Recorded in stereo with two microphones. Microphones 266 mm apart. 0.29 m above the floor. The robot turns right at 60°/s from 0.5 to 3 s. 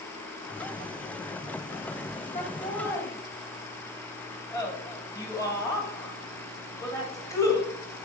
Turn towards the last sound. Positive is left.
turn(degrees=10)  # may be behind; listen again after turning